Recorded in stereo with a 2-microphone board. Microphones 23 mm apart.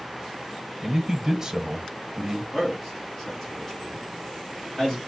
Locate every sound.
0.8 s a man speaking: 25° right (ahead or behind), 1.0 m
2.5 s a man speaking: 20° left (ahead or behind), 2 m